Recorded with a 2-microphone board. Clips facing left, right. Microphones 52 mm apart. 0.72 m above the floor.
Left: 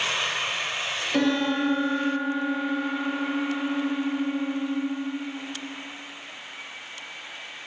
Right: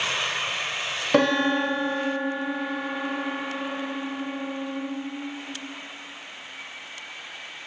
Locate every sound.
1.1 s a piano: 65° right (ahead or behind), 1.1 m